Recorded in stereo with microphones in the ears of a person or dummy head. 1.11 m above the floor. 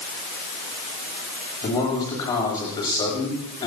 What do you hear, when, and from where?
1.6 s a man speaking: 20° left (ahead or behind), 8 m